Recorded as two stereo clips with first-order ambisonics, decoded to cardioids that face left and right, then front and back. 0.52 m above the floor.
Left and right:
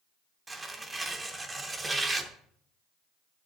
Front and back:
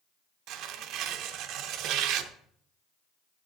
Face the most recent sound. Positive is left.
turn(degrees=-170)